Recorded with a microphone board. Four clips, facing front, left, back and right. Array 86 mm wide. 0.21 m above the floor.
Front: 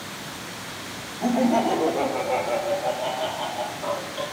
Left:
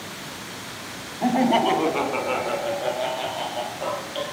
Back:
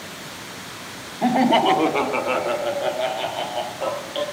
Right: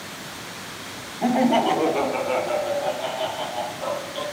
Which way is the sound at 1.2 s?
175° right.